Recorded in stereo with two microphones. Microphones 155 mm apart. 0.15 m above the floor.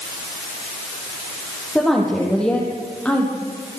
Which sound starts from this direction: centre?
A woman speaking, at 1.8 s.